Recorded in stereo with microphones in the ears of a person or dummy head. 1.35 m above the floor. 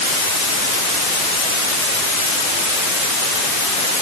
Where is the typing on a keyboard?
I don't hear typing on a keyboard.